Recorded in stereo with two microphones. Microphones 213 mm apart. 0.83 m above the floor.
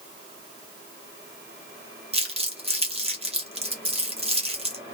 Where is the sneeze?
No sneeze in this recording.